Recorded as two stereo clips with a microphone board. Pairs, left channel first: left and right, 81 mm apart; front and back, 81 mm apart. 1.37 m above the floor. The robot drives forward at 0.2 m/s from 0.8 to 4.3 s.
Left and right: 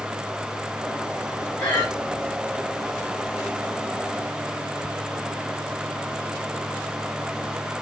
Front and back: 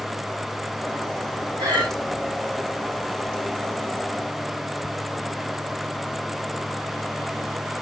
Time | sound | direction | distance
1.6 | breathing | 155° left | 2 m